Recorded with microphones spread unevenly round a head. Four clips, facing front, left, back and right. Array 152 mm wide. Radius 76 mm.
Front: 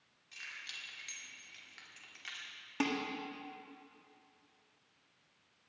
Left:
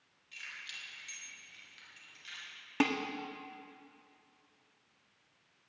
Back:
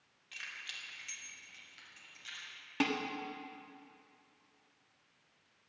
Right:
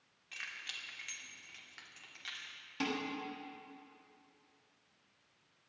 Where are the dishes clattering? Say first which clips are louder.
Left 6 dB, back 1 dB; 95° left, 1.4 m.